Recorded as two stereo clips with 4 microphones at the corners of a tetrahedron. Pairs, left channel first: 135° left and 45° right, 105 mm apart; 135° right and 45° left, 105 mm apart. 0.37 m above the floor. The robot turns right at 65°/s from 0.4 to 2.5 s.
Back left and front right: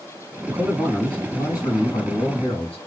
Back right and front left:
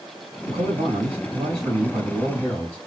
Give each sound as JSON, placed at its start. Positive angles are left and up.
{"t": 0.5, "sound": "a man speaking", "azimuth_deg": 20, "distance_m": 3.0}